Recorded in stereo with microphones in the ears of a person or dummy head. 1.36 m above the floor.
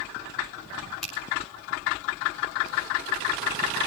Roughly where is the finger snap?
Centre.